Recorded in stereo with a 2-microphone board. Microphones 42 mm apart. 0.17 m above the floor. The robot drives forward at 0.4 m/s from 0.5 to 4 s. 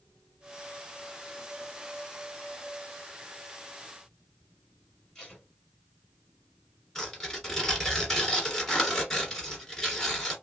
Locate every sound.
5.2 s tape being pulled: 15° left (ahead or behind), 3.5 m
7.0 s tearing paper: 10° left (ahead or behind), 2 m